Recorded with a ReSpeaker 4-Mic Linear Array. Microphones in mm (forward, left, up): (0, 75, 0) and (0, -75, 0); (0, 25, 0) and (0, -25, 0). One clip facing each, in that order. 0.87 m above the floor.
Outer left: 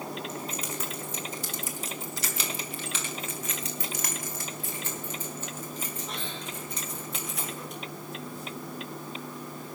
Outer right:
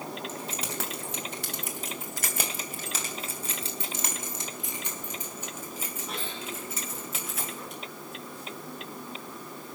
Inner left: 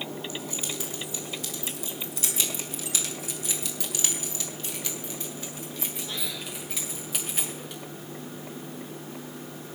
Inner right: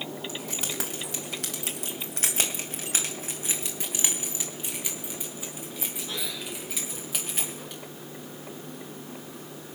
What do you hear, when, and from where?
0.3 s keys jangling: 85° right, 3.5 m; by 7.8 s centre (ahead or behind), 6.5 m